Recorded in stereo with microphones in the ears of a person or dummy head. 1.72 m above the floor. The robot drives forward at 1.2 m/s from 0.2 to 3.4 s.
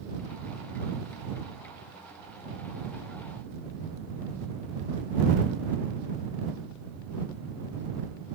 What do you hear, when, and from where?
Only background noise.